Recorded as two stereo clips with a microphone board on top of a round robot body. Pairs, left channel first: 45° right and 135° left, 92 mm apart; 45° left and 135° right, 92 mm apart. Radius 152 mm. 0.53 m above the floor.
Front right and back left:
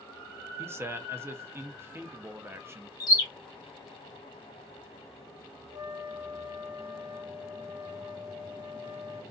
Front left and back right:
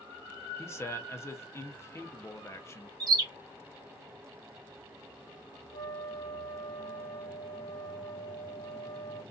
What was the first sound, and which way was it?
A man speaking, 90° left.